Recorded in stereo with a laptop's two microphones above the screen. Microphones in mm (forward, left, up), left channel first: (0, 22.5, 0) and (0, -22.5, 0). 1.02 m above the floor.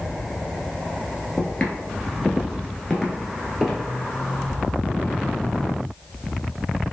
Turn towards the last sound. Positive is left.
turn(degrees=0)  # may be behind; listen again after turning